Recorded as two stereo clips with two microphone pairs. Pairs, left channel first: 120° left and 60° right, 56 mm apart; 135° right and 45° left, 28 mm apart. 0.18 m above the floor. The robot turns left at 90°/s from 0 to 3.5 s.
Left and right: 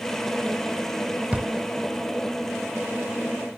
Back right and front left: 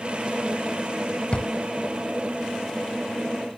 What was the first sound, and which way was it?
A drawer, 120° right.